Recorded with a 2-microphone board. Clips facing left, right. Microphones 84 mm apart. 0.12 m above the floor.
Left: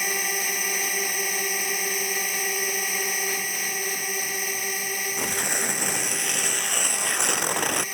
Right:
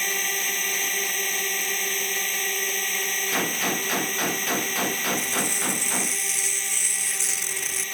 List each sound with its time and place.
0.0 s a drone: 10° left (ahead or behind)
3.3 s a gunshot: 75° right (ahead or behind)
5.2 s tearing paper: 60° left (ahead or behind)